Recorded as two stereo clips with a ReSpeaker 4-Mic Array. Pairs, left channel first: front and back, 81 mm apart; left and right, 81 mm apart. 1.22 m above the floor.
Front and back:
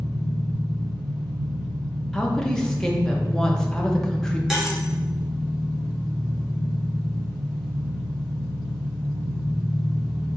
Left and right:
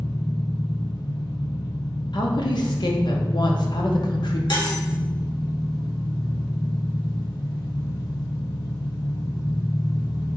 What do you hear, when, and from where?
0.0 s an engine running: 95° left, 1.5 m
2.1 s a woman speaking: 80° left, 0.8 m
4.5 s cutlery clinking: 95° left, 1.0 m